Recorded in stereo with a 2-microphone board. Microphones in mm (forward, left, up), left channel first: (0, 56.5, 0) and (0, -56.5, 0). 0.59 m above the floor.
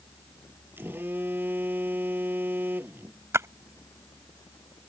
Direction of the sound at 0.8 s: 15° right (ahead or behind).